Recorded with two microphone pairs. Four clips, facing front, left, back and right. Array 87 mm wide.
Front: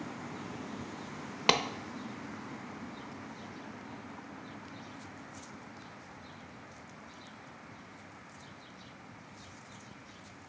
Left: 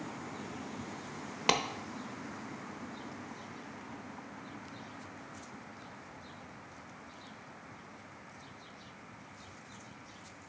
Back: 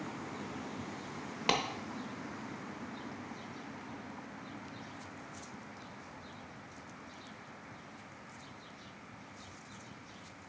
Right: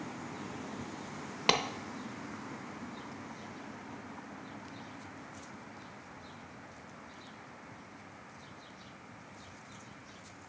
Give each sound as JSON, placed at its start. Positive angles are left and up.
{"t": 1.5, "sound": "a clap", "azimuth_deg": 5, "distance_m": 0.6}